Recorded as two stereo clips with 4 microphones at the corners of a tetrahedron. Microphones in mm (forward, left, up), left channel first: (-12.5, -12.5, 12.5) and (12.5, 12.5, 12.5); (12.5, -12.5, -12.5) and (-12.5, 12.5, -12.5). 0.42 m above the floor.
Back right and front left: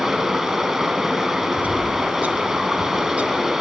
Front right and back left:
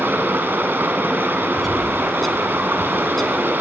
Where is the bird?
35° left, 0.9 m.